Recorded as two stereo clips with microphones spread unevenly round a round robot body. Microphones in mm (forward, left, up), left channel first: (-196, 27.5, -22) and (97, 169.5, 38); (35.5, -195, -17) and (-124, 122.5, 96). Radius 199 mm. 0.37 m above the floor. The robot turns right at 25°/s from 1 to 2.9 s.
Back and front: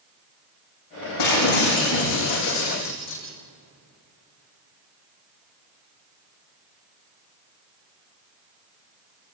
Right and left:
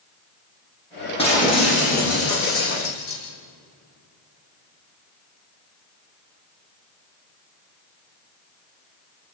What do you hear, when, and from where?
1.2 s breaking glass: 140° right, 9 m; by 3.2 s 95° right, 9 m